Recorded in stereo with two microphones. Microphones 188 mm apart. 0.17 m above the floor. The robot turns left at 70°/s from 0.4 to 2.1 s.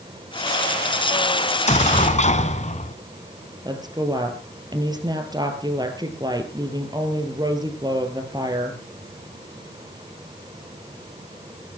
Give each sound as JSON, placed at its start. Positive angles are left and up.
{"t": 1.5, "sound": "an explosion", "azimuth_deg": 120, "distance_m": 1.0}
{"t": 3.6, "sound": "a woman speaking", "side_deg": -20, "distance_m": 3.0}